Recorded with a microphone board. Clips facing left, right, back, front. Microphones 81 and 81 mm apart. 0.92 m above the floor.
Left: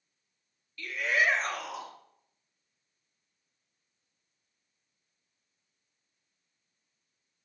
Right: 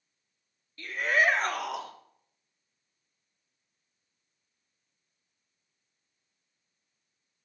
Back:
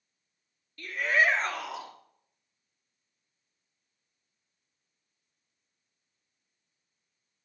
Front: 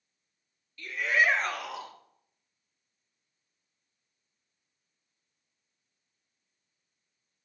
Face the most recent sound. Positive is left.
turn(degrees=-105)